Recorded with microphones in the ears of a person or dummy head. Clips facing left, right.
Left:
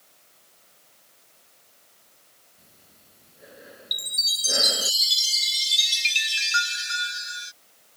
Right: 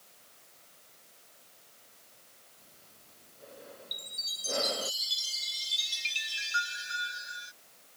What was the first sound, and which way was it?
Breathing, 25° left (ahead or behind).